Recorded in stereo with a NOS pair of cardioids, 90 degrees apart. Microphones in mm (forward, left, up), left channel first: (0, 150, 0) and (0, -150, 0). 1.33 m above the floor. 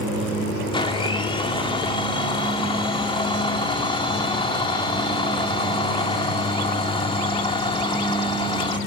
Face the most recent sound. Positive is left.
turn(degrees=15)